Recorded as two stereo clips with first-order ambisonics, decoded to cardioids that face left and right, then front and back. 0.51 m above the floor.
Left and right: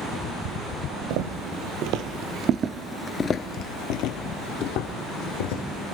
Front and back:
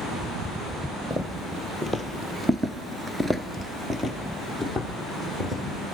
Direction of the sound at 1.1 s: 95° right.